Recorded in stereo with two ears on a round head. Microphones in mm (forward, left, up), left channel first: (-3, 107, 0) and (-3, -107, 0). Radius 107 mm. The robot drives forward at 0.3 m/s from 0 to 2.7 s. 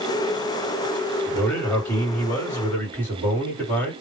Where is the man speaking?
10° left (ahead or behind), 1.5 m.